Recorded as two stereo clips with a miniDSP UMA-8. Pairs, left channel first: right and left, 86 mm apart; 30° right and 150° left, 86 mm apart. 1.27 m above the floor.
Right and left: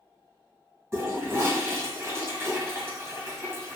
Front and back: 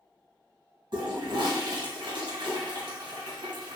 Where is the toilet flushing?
150° left, 2 m.